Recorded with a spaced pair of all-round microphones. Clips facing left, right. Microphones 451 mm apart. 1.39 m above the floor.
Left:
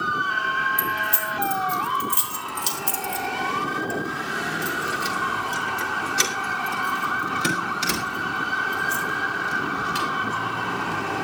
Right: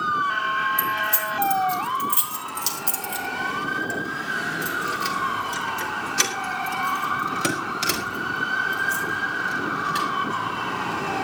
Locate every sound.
0.8 s keys jangling: 80° right, 3.5 m; by 10.1 s 20° left (ahead or behind), 6 m